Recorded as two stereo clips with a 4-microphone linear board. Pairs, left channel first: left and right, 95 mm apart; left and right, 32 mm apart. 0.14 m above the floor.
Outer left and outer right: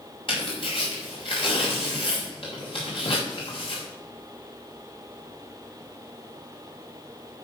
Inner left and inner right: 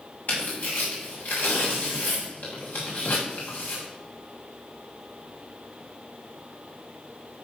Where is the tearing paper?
60° left (ahead or behind), 5 m.